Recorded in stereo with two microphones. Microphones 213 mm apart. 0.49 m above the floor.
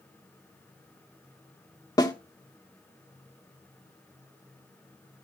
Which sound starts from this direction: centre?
A snare drum, at 2.0 s.